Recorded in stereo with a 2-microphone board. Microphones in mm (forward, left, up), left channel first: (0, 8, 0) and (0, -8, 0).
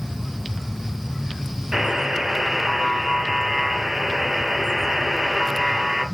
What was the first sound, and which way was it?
A buzzer, 25° right (ahead or behind).